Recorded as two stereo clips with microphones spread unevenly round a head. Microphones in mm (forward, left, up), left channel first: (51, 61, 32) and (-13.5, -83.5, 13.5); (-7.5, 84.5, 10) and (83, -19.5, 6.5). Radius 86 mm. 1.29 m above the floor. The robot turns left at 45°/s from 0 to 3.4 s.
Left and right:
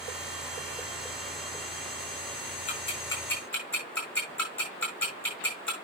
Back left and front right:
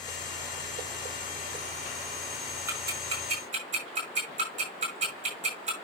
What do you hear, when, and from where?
2.7 s ticking: 15° left, 8 m; by 5.7 s 15° right, 8 m